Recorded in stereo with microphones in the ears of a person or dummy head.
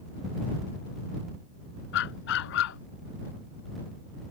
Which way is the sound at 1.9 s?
65° left (ahead or behind).